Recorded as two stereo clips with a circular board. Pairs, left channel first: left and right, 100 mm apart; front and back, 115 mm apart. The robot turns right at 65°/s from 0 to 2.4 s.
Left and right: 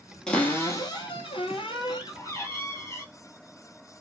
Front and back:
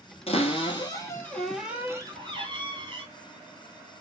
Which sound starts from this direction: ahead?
A cupboard door, at 0.3 s.